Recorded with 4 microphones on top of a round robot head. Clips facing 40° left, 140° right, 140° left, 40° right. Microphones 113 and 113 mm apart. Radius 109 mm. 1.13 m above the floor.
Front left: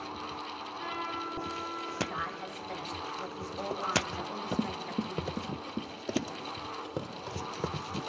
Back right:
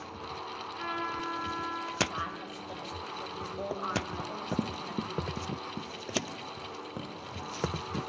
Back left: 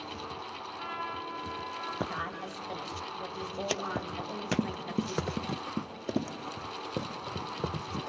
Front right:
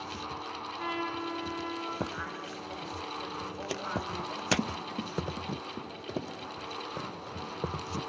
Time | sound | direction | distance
0.8 | a trumpet | 100° right | 9.5 m
2.1 | a woman speaking | 140° left | 7.5 m
4.2 | running footsteps | 155° right | 1.1 m